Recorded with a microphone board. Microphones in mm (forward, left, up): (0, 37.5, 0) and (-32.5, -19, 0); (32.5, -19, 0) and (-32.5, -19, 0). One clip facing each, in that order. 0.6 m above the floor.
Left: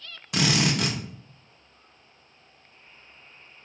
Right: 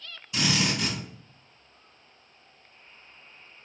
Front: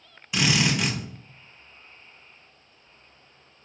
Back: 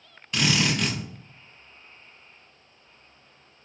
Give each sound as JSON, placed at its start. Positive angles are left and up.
{"t": 0.3, "sound": "a drill", "azimuth_deg": 80, "distance_m": 0.6}